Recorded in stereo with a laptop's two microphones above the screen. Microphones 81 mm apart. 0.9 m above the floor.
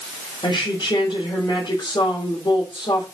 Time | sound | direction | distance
0.4 | a woman speaking | 70° left (ahead or behind) | 4 m